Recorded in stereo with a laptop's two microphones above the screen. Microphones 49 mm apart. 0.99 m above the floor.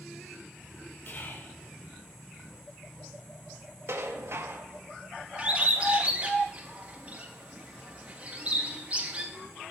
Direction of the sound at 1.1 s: 40° left (ahead or behind).